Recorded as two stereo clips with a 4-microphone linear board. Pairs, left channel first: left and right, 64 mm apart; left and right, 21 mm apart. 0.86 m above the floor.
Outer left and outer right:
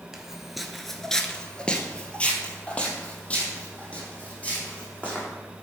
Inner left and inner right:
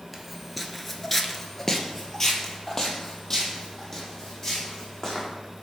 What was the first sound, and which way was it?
Footsteps, 10° right (ahead or behind).